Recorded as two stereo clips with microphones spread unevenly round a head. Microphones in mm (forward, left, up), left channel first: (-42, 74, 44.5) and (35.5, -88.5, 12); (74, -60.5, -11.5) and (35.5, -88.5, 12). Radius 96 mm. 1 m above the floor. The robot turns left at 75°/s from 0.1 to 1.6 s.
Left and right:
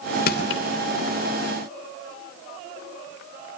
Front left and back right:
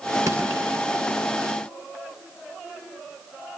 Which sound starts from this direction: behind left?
Crushing, at 0.3 s.